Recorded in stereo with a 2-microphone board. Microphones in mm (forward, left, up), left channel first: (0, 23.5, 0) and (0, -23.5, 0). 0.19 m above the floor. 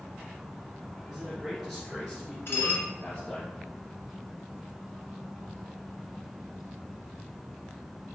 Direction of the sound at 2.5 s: 60° left (ahead or behind).